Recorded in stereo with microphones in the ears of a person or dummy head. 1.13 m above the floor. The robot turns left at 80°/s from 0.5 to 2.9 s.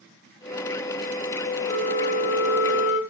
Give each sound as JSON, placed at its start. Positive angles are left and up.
{"t": 1.7, "sound": "a flute", "azimuth_deg": 160, "distance_m": 5.5}